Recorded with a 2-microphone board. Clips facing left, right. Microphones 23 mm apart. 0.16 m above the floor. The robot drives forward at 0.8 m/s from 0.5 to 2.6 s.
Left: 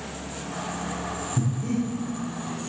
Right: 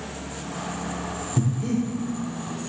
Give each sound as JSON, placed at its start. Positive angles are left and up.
{"t": 1.4, "sound": "breathing", "side_deg": -50, "distance_m": 6.0}